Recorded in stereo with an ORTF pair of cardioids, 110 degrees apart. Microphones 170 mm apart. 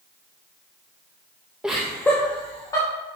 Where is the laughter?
5° right, 0.9 m; by 2.9 s 20° left, 2 m.